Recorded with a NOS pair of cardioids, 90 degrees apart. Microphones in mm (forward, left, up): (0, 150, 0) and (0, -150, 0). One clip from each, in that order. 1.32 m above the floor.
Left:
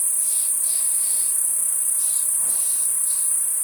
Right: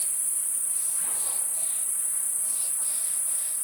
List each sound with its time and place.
0.0 s an insect: 65° left, 1.0 m